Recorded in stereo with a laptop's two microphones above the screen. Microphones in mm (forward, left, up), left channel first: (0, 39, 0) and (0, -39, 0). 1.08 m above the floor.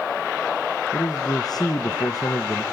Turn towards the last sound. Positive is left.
turn(degrees=55)  # may be behind; listen again after turning